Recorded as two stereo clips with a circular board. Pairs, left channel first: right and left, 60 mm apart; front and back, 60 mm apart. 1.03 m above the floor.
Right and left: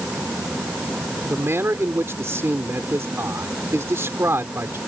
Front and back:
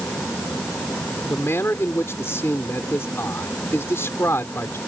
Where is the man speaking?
45° left.